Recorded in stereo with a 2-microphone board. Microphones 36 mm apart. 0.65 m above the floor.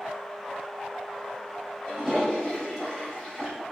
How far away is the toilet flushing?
About 1.3 m.